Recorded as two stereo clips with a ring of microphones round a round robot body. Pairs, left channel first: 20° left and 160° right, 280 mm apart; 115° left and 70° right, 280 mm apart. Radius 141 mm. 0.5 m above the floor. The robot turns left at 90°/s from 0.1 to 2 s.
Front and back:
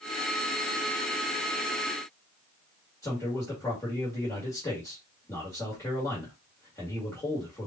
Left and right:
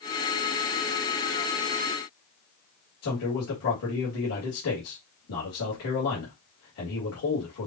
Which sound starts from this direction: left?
A man speaking, at 3.0 s.